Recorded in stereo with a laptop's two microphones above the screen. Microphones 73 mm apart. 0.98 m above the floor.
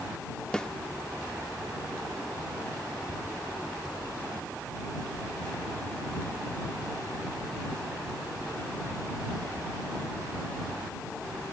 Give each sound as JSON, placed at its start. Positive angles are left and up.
{"t": 0.5, "sound": "a snare drum", "side_deg": 15}